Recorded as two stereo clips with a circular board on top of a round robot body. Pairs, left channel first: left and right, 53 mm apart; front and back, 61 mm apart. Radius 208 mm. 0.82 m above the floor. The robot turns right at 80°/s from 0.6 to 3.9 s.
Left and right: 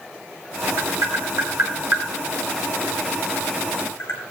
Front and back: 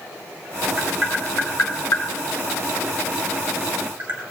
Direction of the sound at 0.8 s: 125° right.